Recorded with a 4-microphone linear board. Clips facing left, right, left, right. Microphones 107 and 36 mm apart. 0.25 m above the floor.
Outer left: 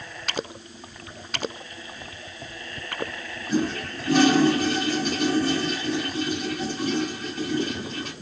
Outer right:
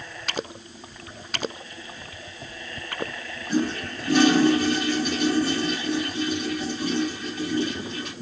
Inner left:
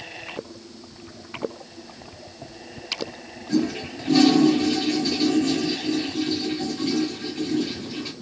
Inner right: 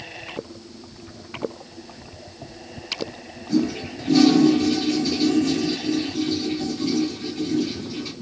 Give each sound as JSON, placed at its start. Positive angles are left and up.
{"t": 3.5, "sound": "a toilet flushing", "side_deg": 35, "distance_m": 3.5}